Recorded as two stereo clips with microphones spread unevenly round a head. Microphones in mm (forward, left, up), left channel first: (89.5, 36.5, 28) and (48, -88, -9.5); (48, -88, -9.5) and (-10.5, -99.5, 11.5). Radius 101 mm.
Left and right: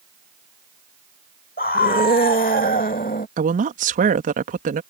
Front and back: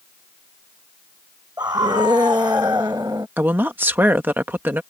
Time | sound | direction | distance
1.6 | a scream | 120° left | ?
3.4 | a woman speaking | 105° right | ?